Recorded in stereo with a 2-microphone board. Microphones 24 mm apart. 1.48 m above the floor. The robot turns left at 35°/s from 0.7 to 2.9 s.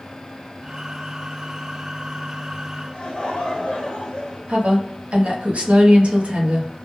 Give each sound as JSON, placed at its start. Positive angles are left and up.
{"t": 2.9, "sound": "laughter", "side_deg": 45, "distance_m": 0.7}
{"t": 4.5, "sound": "a woman speaking", "side_deg": -60, "distance_m": 0.7}